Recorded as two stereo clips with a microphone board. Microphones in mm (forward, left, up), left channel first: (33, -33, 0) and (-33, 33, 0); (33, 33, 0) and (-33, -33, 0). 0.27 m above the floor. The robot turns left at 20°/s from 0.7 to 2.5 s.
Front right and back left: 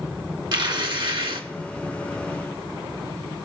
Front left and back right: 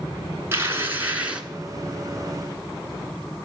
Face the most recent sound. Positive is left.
turn(degrees=125)